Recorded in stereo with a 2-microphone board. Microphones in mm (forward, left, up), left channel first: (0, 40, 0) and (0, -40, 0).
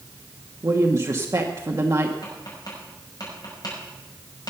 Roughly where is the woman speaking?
Right.